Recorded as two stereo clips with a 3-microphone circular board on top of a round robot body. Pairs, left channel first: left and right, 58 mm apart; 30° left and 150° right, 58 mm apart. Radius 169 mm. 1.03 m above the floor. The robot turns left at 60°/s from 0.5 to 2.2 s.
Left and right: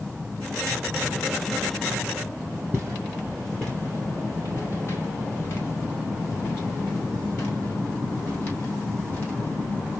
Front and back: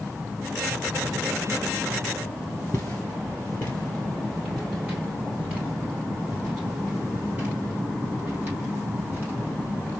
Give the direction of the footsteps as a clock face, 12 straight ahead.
1 o'clock.